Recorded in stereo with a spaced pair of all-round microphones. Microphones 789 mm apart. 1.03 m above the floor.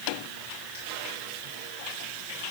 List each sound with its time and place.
Only background noise.